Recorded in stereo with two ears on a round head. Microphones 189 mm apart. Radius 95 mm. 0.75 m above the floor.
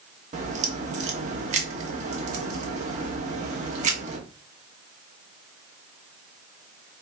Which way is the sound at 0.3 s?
35° right (ahead or behind).